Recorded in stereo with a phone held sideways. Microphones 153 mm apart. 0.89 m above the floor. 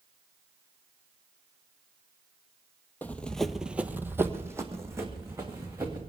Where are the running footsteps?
10° left (ahead or behind), 1.1 m; by 6.0 s 20° right (ahead or behind), 3.5 m.